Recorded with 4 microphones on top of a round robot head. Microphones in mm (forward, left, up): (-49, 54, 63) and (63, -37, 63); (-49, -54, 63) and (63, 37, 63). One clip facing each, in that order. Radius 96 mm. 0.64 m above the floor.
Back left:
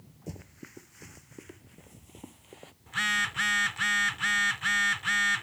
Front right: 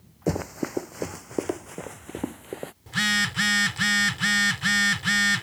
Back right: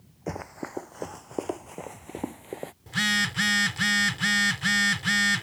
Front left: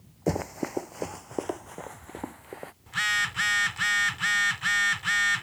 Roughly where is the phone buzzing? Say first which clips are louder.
Front right 6 dB, back right 5 dB; right.